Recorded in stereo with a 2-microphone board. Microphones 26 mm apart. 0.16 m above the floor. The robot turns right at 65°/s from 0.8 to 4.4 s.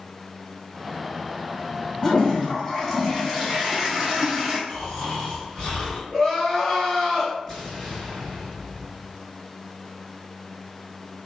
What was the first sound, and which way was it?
A toilet flushing, 20° left (ahead or behind).